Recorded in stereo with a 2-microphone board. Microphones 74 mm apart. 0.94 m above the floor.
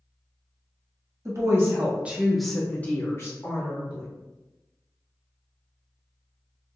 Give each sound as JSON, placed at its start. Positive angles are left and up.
{"t": 1.2, "sound": "a woman speaking", "side_deg": -45, "distance_m": 1.0}